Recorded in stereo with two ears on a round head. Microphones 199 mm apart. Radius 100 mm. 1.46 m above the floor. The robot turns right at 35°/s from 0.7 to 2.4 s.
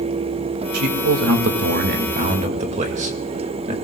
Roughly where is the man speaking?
Right.